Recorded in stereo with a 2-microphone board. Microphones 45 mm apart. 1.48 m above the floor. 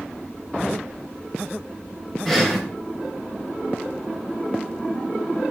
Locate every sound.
2.2 s breathing: 10° left (ahead or behind), 3 m